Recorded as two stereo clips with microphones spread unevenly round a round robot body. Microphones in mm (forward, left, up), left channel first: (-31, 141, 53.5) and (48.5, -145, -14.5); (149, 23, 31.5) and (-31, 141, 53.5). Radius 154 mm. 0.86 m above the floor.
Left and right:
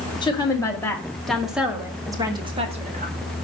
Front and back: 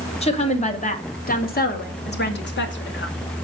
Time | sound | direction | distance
0.2 | a woman speaking | 25° left | 2.5 m